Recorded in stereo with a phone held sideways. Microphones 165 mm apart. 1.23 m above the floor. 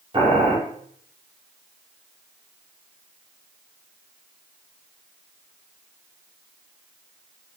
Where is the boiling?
30° right (ahead or behind), 0.9 m.